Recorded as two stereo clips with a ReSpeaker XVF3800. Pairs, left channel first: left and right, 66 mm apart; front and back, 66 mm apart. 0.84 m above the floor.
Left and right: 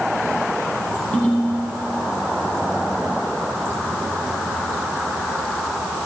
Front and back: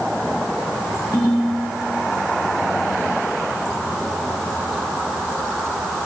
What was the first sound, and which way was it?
A ringtone, 25° left.